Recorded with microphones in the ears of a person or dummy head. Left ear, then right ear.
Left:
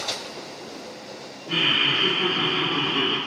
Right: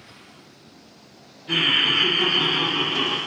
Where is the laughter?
65° right (ahead or behind), 0.8 m; by 3.2 s 5° left (ahead or behind), 0.9 m.